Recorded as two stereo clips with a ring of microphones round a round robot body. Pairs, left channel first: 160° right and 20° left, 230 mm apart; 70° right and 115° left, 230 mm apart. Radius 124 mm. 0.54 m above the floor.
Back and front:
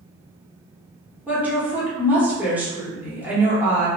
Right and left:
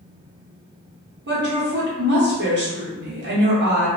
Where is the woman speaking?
105° left, 1.1 m.